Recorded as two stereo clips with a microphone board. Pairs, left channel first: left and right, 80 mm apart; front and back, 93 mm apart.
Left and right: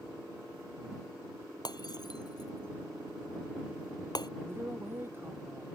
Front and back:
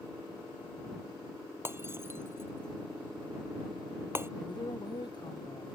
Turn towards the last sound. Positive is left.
turn(degrees=-30)